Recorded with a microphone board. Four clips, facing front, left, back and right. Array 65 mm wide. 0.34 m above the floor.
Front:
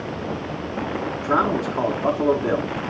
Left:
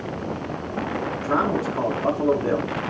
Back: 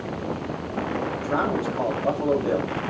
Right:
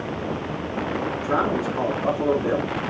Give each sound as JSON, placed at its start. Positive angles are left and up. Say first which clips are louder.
{"t": 1.2, "sound": "a man speaking", "louder": "left 1 dB, front 5 dB", "azimuth_deg": 30, "distance_m": 3.5}